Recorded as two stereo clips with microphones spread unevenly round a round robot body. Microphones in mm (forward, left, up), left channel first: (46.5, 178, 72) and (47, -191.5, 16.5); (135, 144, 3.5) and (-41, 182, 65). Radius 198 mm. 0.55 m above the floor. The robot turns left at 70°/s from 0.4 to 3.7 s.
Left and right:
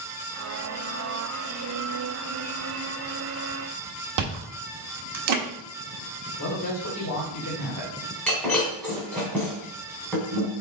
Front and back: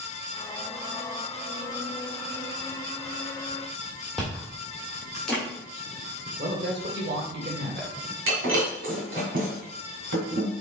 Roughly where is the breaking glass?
Behind.